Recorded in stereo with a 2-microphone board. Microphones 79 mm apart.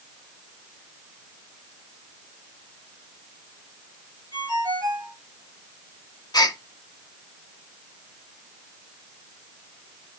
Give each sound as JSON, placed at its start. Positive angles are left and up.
{"t": 4.3, "sound": "a ringtone", "side_deg": -45, "distance_m": 6.0}
{"t": 6.3, "sound": "a gasp", "side_deg": 55, "distance_m": 0.6}